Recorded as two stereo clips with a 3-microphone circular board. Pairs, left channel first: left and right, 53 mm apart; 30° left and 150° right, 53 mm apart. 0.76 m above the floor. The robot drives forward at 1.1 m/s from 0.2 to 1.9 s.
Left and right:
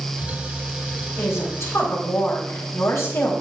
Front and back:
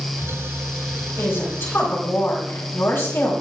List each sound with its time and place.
1.2 s a woman speaking: 60° left, 4 m; by 3.3 s 70° left, 3.5 m